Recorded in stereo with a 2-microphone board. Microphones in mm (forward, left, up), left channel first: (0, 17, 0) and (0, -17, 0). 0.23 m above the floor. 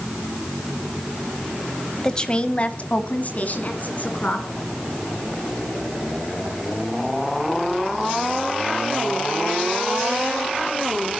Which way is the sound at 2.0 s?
20° left (ahead or behind).